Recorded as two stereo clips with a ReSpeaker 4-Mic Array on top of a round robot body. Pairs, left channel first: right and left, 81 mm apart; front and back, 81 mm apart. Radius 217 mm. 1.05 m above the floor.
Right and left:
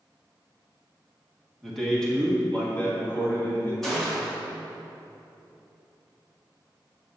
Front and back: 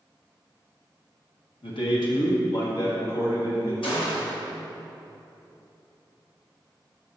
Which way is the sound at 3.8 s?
5° right.